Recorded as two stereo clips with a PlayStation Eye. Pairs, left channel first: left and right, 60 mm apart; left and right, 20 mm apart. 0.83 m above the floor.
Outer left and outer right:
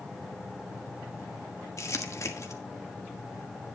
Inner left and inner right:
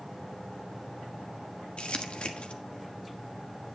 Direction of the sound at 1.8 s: 55° left (ahead or behind).